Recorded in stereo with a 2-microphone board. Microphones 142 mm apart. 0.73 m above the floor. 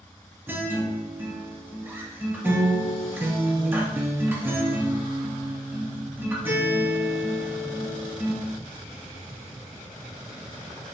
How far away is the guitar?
About 0.7 m.